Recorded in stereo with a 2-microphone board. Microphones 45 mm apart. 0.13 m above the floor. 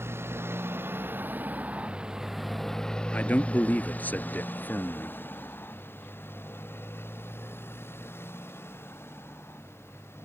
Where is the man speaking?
40° left (ahead or behind).